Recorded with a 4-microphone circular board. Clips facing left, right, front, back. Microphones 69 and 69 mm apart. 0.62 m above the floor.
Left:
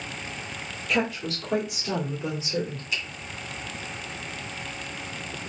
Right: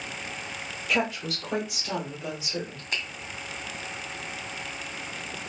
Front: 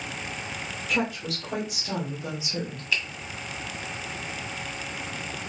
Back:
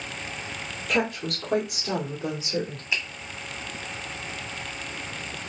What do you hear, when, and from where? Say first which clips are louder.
0.9 s a woman speaking: left 1 dB, back 2 dB; straight behind, 2 m; by 2.8 s 145° left, 1.7 m
2.9 s a finger snap: right 1 dB, front 1 dB; 120° right, 1.8 m